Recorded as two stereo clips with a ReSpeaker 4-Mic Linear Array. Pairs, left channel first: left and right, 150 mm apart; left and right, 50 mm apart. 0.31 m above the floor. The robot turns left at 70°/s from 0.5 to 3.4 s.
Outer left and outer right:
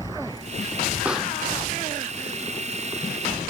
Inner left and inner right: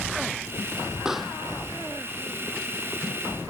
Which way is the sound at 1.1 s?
10° right (ahead or behind).